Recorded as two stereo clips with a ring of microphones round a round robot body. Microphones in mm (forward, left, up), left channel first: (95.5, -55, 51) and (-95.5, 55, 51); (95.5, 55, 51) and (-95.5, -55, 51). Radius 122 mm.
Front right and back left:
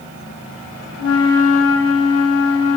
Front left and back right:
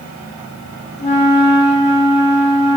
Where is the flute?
30° right, 0.5 m.